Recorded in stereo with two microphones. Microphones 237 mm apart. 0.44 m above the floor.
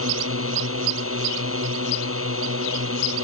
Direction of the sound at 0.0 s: 80° right.